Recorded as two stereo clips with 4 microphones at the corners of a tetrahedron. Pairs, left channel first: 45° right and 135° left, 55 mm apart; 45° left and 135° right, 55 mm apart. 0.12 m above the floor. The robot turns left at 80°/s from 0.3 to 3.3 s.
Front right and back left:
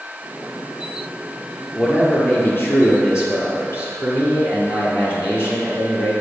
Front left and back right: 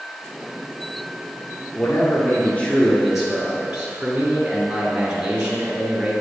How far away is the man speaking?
About 2.0 m.